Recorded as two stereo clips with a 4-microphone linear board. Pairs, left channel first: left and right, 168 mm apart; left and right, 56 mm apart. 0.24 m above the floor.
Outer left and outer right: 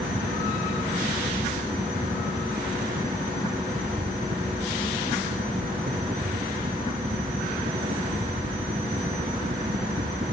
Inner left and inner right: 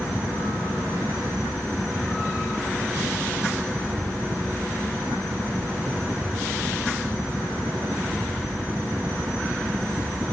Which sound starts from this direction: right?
A helicopter, at 0.0 s.